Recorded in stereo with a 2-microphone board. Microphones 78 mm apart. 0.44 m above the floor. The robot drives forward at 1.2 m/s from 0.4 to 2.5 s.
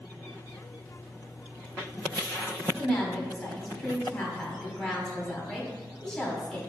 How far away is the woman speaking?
About 1.1 m.